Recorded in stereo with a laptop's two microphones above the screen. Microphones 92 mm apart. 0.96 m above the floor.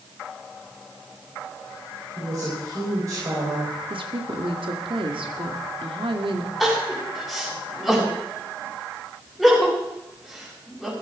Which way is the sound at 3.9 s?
75° right (ahead or behind).